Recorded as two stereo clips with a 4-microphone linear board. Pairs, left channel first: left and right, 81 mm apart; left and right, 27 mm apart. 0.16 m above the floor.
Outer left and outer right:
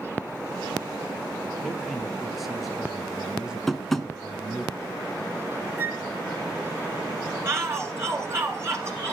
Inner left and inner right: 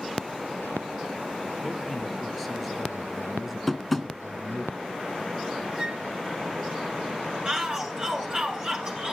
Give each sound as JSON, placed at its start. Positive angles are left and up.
{"t": 1.6, "sound": "a man speaking", "side_deg": 0, "distance_m": 4.5}
{"t": 3.7, "sound": "tapping", "side_deg": 0, "distance_m": 1.8}
{"t": 5.8, "sound": "a flute", "side_deg": -25, "distance_m": 1.6}
{"t": 7.5, "sound": "a shout", "side_deg": -35, "distance_m": 1.6}